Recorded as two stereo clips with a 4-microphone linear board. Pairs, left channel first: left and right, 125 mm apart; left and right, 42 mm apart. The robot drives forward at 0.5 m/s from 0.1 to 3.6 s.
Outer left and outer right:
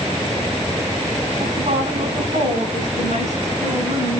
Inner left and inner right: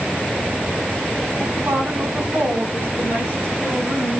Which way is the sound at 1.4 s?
75° right (ahead or behind).